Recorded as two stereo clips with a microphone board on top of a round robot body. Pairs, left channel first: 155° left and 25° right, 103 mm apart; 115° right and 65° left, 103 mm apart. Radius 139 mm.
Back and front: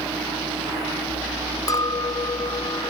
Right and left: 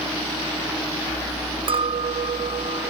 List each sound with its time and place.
1.7 s a clink: 105° left